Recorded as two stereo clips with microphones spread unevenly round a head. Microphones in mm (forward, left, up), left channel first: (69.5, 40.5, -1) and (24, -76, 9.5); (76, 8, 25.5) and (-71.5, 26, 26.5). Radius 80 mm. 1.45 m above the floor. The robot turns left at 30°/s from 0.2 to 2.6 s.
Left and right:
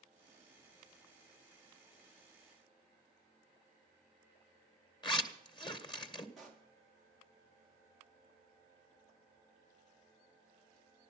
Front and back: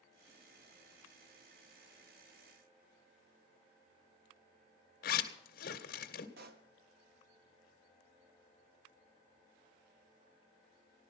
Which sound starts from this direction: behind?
A pop, at 6.4 s.